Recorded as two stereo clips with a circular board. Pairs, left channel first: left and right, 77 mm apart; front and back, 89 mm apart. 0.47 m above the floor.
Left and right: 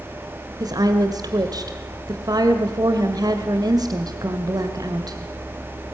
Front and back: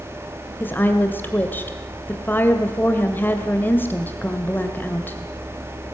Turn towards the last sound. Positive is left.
turn(degrees=-65)